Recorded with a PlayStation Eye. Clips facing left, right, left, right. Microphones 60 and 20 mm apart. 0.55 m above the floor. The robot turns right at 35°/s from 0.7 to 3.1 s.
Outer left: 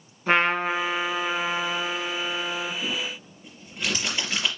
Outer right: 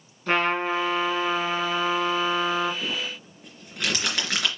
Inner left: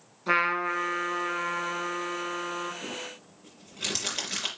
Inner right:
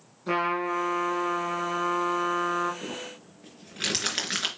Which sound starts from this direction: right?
Crumpling, at 2.8 s.